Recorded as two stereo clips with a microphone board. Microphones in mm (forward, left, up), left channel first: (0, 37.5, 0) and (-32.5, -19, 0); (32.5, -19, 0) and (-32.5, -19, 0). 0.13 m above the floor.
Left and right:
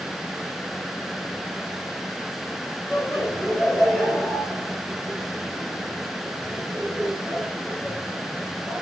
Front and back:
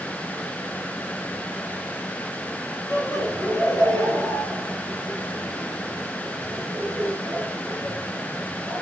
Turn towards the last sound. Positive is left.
turn(degrees=-20)